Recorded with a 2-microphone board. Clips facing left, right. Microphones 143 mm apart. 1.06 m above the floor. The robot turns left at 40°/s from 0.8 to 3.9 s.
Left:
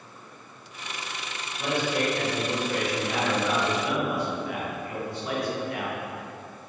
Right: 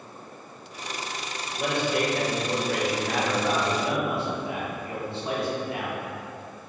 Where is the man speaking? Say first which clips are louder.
Right 1 dB; 60° right, 1.0 m; by 6.0 s 155° right, 1.0 m.